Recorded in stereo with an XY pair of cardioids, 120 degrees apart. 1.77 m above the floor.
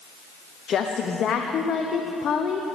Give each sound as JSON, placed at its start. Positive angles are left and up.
{"t": 0.7, "sound": "a woman speaking", "azimuth_deg": 50, "distance_m": 0.9}